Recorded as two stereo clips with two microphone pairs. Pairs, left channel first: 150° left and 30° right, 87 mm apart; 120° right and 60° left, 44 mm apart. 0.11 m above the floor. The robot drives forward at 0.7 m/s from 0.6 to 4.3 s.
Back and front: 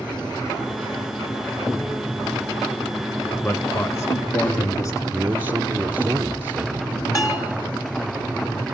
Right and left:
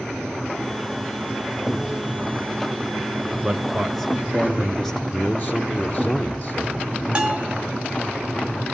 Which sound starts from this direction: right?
A man speaking, at 5.1 s.